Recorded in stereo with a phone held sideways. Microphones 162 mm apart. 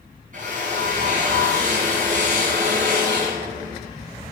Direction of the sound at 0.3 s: 55° right (ahead or behind).